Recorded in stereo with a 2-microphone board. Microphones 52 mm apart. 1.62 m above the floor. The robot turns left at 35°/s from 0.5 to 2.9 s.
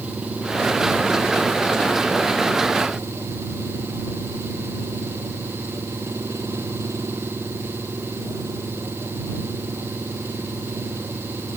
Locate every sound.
0.0 s an engine running: 25° right; by 11.6 s 110° right